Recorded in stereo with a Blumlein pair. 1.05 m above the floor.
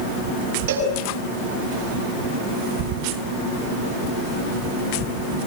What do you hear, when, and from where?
0.7 s a cowbell: 55° right, 6.5 m